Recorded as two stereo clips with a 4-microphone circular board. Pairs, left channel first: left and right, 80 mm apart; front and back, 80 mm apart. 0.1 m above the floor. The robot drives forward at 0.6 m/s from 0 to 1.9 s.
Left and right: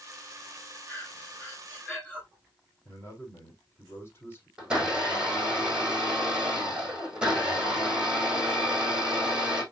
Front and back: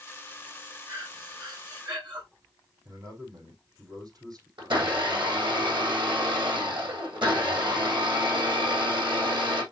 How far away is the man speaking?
About 5.5 m.